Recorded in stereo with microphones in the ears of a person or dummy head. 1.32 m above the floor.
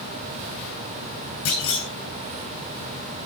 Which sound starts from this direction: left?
A clunk, at 1.4 s.